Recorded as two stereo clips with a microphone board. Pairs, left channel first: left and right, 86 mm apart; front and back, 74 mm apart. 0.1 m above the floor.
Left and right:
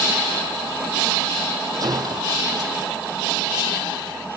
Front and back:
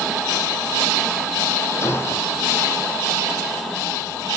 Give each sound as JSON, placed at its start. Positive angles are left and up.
{"t": 1.8, "sound": "a gunshot", "azimuth_deg": -50, "distance_m": 3.0}